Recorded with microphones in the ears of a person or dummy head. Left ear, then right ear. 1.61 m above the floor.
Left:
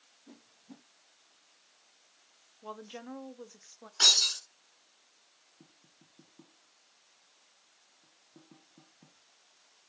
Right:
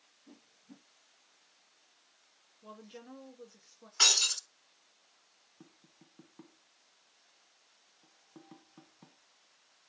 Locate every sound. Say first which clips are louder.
0.3 s a whoosh: left 3 dB; 25° left (ahead or behind), 0.6 m
2.6 s a woman speaking: left 6 dB; 40° left (ahead or behind), 0.8 m
4.0 s breaking glass: left 3 dB; 10° right (ahead or behind), 3 m
5.6 s tapping: right 3 dB; 35° right (ahead or behind), 1.1 m